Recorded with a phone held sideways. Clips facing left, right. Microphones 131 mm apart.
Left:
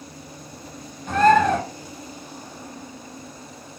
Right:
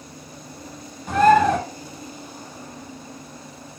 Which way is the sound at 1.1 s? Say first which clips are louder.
Right 1 dB; 10° right (ahead or behind).